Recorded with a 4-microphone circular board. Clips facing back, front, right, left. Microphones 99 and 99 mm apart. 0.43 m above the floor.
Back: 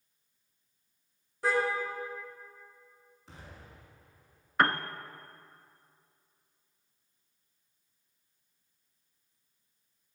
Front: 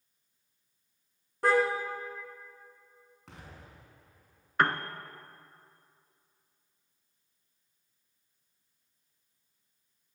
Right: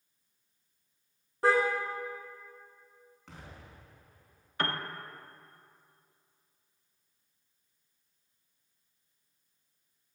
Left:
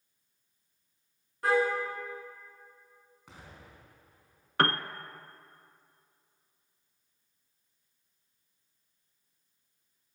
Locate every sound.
1.4 s a car horn: 30° right, 3 m
3.3 s an explosion: 10° left, 5 m
4.6 s a piano: 90° left, 0.7 m